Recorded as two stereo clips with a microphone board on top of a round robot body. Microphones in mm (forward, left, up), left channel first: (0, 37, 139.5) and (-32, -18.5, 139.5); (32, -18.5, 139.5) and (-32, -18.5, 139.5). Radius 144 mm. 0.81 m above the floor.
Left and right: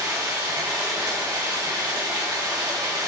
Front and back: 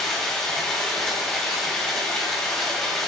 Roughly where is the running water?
Right.